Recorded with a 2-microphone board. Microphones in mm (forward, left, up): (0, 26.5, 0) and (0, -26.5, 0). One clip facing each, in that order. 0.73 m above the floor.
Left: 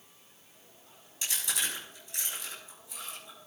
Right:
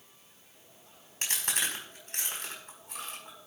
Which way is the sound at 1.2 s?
55° right (ahead or behind).